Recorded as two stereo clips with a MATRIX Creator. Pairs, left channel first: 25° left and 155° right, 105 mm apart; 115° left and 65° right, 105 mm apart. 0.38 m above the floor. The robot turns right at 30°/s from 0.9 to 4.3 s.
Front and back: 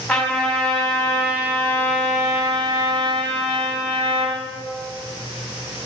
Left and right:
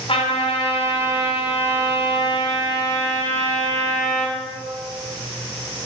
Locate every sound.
0.1 s a trumpet: 105° left, 3 m; by 4.4 s 150° right, 3 m